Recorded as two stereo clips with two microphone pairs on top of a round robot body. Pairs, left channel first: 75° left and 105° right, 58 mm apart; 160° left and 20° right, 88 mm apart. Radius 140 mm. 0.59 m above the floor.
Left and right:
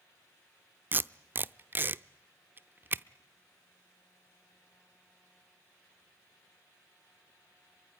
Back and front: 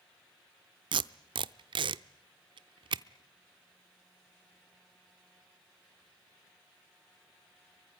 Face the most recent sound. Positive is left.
turn(degrees=-50)